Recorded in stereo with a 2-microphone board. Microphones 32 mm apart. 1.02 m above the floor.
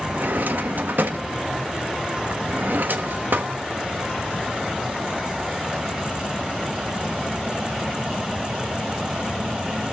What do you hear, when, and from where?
0.1 s a drawer: 80° right, 0.7 m